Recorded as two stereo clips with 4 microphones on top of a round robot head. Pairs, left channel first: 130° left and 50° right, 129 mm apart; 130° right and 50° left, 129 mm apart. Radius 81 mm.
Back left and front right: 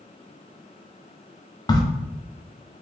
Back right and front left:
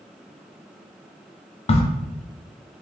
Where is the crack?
170° right, 0.5 m.